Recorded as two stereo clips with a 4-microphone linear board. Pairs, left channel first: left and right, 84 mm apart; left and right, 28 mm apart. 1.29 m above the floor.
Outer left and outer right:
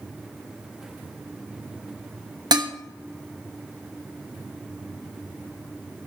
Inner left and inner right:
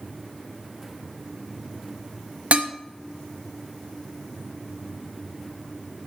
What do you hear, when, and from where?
2.5 s dishes clattering: 55° right (ahead or behind), 0.8 m